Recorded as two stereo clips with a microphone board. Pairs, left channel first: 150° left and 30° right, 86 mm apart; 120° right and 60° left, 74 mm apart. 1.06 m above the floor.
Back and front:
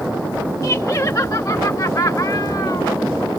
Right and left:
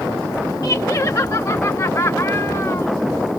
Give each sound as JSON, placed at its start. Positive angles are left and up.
{"t": 0.6, "sound": "laughter", "azimuth_deg": -160}